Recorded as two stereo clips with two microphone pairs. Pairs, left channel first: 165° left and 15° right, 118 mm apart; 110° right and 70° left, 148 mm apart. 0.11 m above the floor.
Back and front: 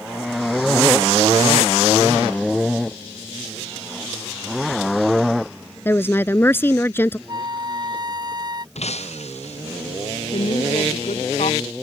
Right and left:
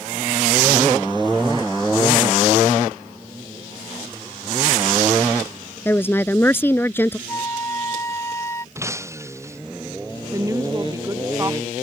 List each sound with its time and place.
5.8 s a woman speaking: 155° right
7.3 s a flute: 45° right
8.8 s breaking glass: 140° left
10.3 s a woman speaking: 140° left